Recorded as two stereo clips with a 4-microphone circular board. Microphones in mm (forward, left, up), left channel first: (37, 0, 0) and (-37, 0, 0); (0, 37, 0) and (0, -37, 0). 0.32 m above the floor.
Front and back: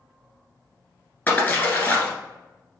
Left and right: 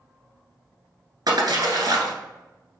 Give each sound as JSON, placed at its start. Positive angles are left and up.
{"t": 1.3, "sound": "a splash", "azimuth_deg": -65, "distance_m": 1.4}